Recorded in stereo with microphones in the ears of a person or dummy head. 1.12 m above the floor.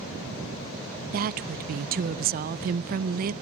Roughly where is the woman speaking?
Right.